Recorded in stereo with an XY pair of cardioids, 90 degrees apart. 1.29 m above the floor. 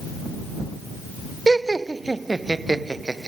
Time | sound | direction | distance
1.5 | laughter | 25° right | ?